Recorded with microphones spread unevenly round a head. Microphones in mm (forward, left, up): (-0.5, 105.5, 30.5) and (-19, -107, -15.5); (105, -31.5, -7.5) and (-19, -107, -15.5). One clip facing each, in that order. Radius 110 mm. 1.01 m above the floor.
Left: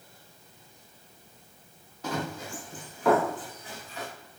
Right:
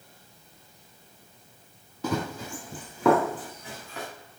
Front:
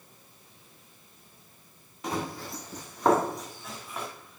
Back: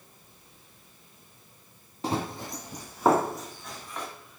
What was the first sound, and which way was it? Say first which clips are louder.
Running footsteps: right 3 dB, back 2 dB; 90° right.